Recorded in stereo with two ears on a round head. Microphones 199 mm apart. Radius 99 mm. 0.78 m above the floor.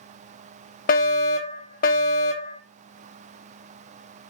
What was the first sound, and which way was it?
A fire alarm, 40° left (ahead or behind).